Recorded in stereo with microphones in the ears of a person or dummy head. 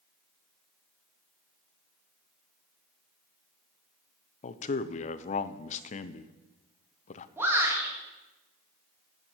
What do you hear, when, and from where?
4.4 s a man speaking: 45° left (ahead or behind), 0.8 m
7.4 s a shout: 15° right (ahead or behind), 3.5 m